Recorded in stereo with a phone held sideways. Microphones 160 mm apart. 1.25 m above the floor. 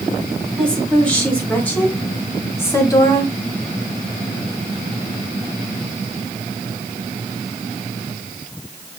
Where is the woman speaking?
5° left (ahead or behind), 4.5 m; by 3.3 s 25° left (ahead or behind), 2.5 m.